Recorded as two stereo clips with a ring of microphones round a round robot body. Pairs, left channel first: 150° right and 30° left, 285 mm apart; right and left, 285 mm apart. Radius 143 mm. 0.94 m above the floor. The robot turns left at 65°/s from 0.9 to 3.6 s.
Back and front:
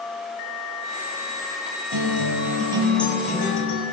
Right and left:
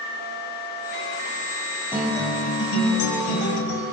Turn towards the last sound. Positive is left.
turn(degrees=-100)